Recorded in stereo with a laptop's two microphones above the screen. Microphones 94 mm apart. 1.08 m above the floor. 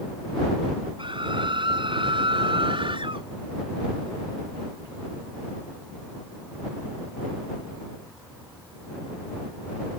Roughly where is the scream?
Right.